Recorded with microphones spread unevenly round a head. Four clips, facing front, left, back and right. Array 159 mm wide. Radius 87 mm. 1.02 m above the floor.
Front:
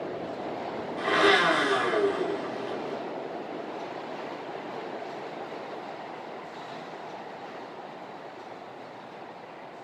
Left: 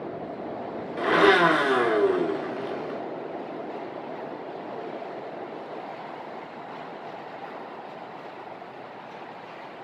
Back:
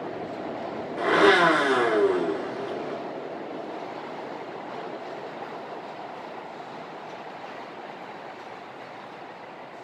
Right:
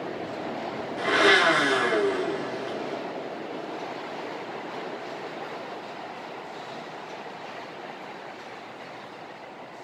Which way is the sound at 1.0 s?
145° left.